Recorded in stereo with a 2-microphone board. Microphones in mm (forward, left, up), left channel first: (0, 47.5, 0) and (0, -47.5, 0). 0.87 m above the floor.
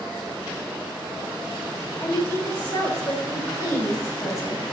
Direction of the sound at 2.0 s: 40° left (ahead or behind).